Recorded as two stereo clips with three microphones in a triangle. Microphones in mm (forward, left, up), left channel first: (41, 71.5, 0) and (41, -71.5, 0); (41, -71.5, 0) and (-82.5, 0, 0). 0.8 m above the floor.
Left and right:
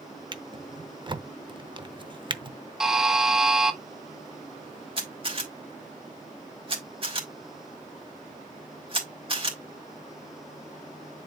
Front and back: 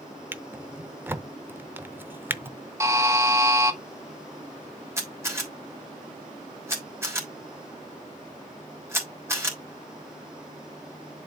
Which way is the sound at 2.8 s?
170° right.